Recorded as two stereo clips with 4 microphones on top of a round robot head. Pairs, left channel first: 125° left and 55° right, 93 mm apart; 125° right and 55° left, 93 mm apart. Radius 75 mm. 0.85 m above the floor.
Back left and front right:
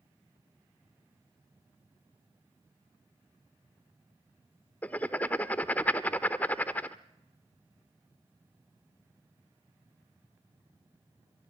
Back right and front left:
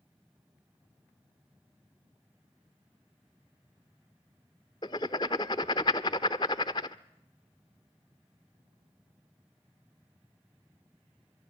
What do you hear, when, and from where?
4.8 s writing: 165° right, 0.5 m